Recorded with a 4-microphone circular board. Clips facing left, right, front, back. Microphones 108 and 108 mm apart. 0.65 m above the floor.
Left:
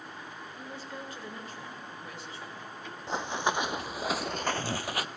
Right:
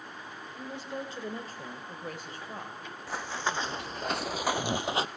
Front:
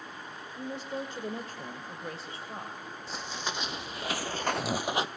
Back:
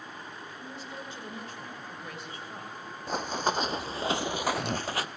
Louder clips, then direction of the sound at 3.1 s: Left 3 dB, back 9 dB; 155° left.